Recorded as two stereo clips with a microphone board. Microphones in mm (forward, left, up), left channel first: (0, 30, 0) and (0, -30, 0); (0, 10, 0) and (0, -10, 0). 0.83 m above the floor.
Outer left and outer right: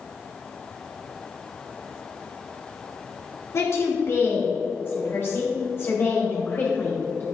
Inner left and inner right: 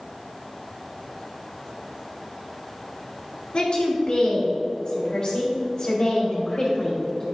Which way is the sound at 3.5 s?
50° left (ahead or behind).